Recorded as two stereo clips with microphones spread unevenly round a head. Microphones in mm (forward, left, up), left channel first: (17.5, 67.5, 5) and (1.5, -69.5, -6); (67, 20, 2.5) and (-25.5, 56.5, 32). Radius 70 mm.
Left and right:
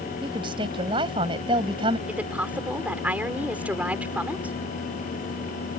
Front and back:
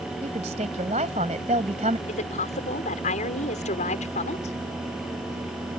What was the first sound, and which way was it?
A woman speaking, 155° right.